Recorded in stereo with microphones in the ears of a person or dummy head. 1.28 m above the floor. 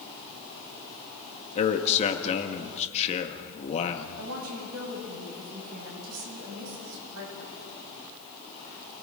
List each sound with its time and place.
1.6 s a man speaking: 35° left (ahead or behind), 1.8 m
4.2 s a woman speaking: 80° right, 9 m